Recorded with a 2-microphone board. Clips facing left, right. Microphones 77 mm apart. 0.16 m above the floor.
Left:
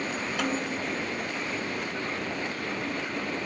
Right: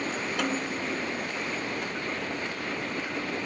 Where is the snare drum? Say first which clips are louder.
Left 1 dB; 5° left (ahead or behind).